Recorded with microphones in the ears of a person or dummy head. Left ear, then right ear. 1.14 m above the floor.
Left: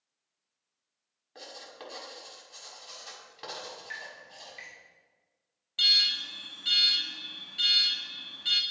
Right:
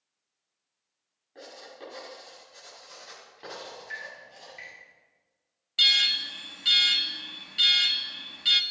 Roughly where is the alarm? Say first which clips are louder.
Right 2 dB; right.